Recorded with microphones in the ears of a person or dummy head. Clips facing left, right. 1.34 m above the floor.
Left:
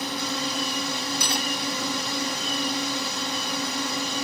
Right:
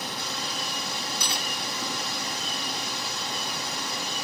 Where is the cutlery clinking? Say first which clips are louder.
Left 5 dB; 40° left (ahead or behind).